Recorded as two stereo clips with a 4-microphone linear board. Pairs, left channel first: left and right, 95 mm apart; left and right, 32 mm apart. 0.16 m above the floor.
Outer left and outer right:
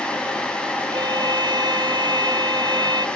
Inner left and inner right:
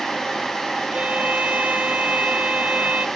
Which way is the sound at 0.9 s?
50° right (ahead or behind).